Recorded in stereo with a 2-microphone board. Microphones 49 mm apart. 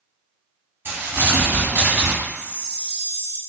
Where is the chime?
30° left (ahead or behind), 1.2 m.